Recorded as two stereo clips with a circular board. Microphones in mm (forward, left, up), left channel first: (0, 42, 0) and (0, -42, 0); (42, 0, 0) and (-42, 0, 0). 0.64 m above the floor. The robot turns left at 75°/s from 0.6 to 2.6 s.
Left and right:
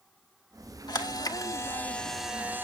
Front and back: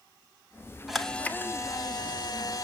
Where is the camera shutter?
95° left, 1.3 m; by 2.6 s 35° right, 1.3 m.